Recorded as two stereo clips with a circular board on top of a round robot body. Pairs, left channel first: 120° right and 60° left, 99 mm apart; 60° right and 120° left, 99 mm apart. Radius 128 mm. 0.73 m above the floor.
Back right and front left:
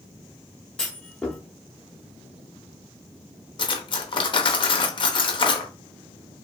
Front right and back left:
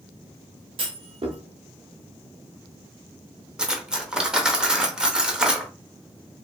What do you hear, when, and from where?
0.8 s a clunk: 160° left, 0.8 m
3.6 s cutlery clinking: 160° right, 0.6 m